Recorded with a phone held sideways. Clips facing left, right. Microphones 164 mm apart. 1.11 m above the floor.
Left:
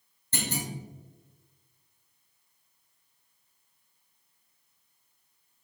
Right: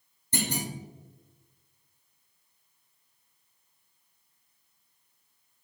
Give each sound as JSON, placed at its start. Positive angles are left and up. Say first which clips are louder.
{"t": 0.3, "sound": "a clunk", "louder": "right 2 dB", "side_deg": -15, "distance_m": 1.3}